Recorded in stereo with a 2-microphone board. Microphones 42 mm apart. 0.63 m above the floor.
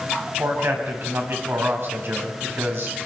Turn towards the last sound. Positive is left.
turn(degrees=-60)  # may be behind; listen again after turning